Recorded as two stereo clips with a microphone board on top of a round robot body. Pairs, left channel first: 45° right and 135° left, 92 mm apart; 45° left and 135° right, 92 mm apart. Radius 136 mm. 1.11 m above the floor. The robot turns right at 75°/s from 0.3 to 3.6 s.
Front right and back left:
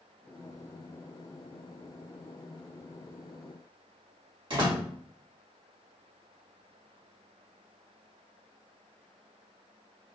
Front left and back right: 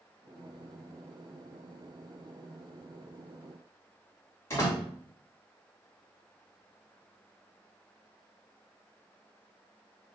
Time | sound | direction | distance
4.5 | a door slam | 100° left | 1.7 m